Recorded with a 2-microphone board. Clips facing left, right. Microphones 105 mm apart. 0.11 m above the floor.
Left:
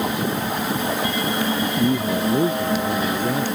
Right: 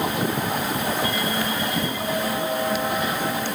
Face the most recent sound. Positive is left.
turn(degrees=60)  # may be behind; listen again after turning